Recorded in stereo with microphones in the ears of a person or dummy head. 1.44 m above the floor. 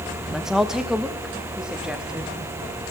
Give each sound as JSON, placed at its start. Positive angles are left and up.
{"t": 0.3, "sound": "a woman speaking", "side_deg": 0, "distance_m": 1.8}